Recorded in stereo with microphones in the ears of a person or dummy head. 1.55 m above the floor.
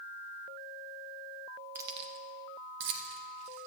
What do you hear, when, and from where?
1.8 s keys jangling: 15° right (ahead or behind), 0.6 m; by 3.7 s 75° right (ahead or behind), 2 m